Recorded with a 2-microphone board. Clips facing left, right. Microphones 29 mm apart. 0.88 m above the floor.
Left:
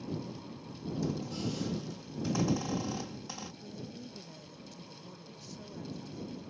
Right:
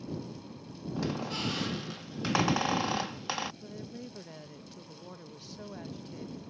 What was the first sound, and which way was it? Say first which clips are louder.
A squeak: right 3 dB; 70° right (ahead or behind).